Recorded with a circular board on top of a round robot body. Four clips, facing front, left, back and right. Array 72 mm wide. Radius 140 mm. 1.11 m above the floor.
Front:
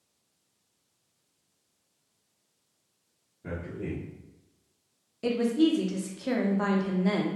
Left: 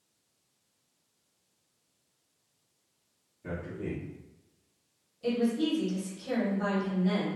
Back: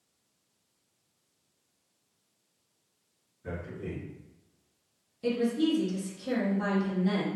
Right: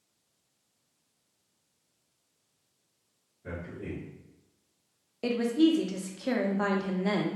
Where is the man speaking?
30° left, 1.1 m.